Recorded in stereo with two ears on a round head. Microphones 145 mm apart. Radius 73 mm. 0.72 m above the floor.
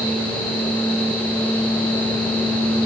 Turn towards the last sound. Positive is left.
No sound to turn to.